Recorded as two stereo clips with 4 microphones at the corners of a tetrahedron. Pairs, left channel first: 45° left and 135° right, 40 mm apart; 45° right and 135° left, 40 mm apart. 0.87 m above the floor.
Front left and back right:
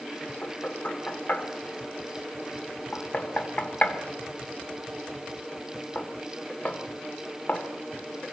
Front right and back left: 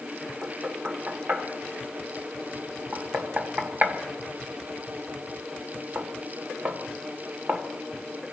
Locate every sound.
0.4 s knocking: 95° left, 2 m